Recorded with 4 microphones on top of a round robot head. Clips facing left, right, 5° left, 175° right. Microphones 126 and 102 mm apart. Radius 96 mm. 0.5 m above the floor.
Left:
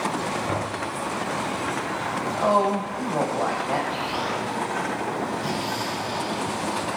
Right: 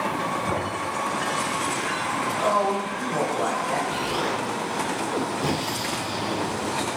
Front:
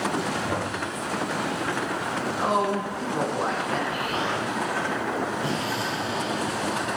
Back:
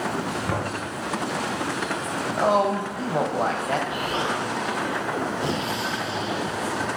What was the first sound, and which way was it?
Knocking, 155° right.